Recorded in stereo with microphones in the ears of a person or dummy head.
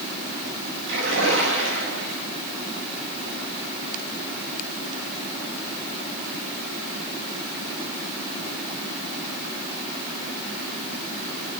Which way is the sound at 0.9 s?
75° right (ahead or behind).